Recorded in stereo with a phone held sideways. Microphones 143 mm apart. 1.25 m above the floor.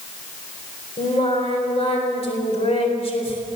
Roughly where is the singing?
Left.